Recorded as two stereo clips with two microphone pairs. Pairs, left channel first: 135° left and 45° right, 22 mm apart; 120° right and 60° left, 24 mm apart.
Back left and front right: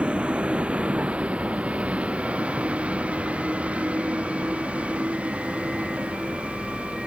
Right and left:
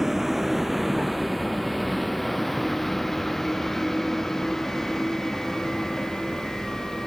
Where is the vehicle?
15° right; by 7.1 s 50° right.